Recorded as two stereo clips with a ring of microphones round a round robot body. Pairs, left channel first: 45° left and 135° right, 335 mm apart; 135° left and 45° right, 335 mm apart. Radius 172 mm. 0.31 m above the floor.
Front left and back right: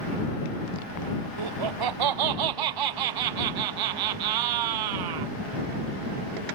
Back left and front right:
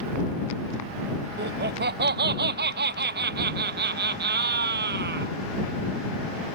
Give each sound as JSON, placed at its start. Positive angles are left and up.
{"t": 1.4, "sound": "laughter", "azimuth_deg": -110}